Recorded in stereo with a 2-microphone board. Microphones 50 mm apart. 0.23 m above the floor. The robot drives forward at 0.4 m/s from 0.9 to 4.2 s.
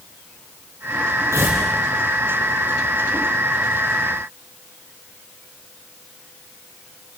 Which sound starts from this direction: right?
Tearing paper, at 1.3 s.